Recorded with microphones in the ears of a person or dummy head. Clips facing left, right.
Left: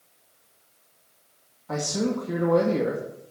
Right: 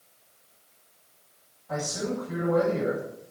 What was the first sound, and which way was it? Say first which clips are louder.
A man speaking: left 4 dB; 80° left.